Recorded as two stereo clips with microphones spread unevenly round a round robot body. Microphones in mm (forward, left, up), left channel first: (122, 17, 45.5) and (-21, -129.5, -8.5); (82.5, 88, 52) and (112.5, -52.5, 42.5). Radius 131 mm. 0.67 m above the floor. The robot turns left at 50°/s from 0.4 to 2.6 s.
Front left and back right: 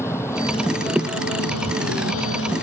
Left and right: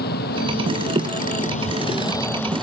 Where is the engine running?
125° left; by 2.6 s 15° left.